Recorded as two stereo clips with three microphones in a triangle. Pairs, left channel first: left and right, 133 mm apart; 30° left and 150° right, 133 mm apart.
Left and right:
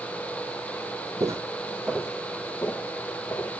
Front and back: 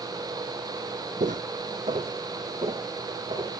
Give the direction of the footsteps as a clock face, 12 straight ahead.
5 o'clock.